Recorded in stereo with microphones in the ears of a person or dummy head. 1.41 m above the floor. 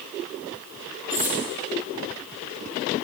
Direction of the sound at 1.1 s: 10° right (ahead or behind).